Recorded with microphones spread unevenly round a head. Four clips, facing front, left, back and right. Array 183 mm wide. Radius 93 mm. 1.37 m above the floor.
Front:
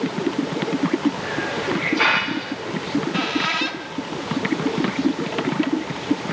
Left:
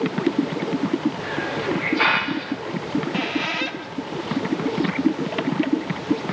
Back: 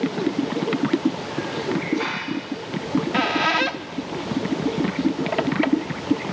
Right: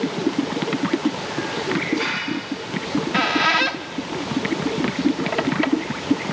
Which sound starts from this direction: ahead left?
A hiss, at 1.2 s.